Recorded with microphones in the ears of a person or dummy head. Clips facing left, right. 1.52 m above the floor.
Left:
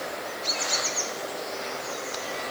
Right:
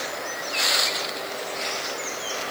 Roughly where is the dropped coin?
No dropped coin in this recording.